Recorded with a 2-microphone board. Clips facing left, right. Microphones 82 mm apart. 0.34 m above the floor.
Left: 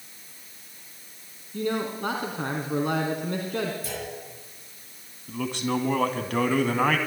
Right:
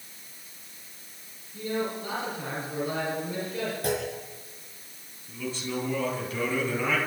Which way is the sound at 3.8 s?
60° right (ahead or behind).